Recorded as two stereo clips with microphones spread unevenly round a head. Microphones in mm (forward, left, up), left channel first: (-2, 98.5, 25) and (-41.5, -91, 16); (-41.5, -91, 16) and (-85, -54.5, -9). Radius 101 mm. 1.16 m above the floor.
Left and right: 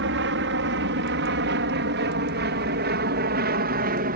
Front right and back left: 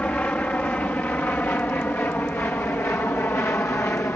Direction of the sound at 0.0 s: 105° right.